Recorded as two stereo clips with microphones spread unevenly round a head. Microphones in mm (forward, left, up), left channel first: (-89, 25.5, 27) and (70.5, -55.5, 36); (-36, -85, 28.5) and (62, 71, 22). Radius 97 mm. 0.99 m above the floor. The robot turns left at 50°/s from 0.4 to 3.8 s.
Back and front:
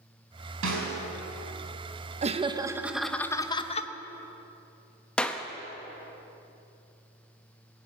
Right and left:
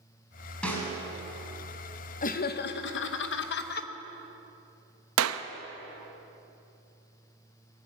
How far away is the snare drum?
About 5 m.